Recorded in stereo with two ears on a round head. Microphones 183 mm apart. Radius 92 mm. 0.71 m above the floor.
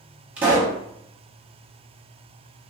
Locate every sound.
0.4 s a pop: 5° right (ahead or behind), 1.0 m